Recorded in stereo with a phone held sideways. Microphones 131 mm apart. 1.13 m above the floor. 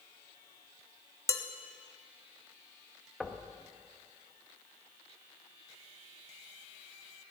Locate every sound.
1.3 s dishes clattering: 20° left (ahead or behind), 1.1 m
3.2 s knocking: 5° left (ahead or behind), 1.1 m